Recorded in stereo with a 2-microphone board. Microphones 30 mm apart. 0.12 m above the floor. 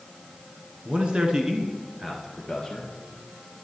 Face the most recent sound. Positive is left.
turn(degrees=5)  # may be behind; listen again after turning